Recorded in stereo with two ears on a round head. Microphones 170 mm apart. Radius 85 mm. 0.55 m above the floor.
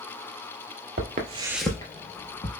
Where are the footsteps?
50° right (ahead or behind), 0.8 m; by 2.5 s 40° left (ahead or behind), 1.3 m.